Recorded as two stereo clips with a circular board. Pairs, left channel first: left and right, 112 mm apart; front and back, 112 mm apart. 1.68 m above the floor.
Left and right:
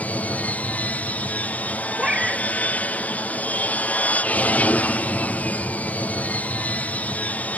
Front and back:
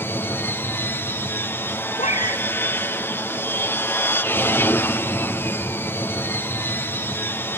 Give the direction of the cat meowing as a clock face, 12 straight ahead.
12 o'clock.